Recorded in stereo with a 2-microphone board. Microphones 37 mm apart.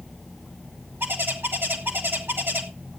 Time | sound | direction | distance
1.0 | a bird | 70° right (ahead or behind) | 2 m